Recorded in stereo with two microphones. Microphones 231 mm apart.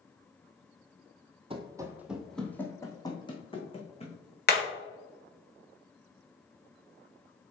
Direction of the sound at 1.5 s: 25° right (ahead or behind).